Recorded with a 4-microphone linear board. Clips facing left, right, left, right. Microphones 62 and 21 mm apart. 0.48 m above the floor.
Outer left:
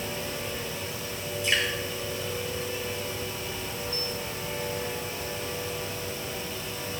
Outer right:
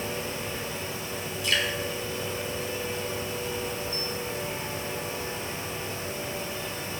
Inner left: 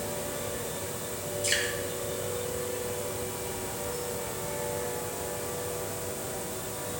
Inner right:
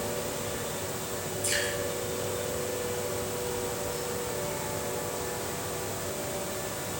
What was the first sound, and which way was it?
Dripping, 25° left (ahead or behind).